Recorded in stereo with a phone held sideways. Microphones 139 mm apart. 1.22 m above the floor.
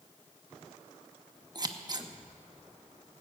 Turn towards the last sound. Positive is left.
turn(degrees=-30)  # may be behind; listen again after turning